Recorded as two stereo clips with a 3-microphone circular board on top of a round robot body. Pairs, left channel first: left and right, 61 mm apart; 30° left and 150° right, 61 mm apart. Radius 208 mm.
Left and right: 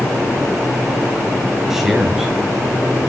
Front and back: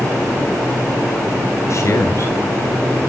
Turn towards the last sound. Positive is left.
turn(degrees=-5)